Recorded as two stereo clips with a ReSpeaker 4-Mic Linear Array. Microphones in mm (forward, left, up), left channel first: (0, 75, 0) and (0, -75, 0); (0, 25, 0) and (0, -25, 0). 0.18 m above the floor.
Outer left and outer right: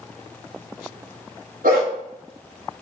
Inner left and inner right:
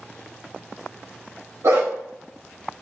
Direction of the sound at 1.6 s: 65° right (ahead or behind).